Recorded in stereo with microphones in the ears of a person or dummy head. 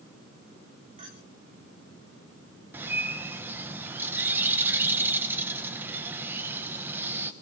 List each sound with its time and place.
1.0 s a clink: 40° right (ahead or behind), 3 m
2.7 s a bird: 10° right (ahead or behind), 1.0 m